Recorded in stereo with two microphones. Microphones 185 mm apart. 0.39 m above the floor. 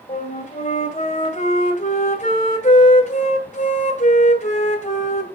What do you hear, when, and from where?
0.1 s a flute: 40° left (ahead or behind), 1.9 m